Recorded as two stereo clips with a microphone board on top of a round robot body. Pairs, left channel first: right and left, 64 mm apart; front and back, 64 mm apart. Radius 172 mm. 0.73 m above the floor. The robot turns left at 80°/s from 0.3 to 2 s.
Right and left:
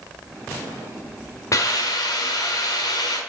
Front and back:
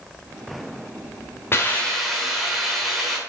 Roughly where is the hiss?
Ahead right.